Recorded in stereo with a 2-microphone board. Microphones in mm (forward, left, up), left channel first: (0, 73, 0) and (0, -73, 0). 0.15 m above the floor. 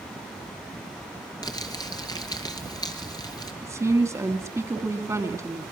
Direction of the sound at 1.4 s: 25° left (ahead or behind).